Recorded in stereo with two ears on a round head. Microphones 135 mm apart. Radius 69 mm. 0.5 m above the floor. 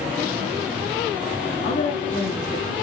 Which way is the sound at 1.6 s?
65° left (ahead or behind).